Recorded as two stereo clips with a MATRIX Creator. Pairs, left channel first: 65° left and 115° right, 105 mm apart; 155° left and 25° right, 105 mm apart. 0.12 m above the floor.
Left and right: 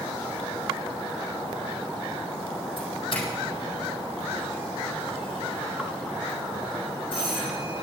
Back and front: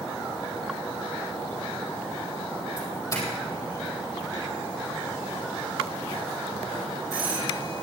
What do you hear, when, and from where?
2.8 s a doorbell: 100° left, 4.5 m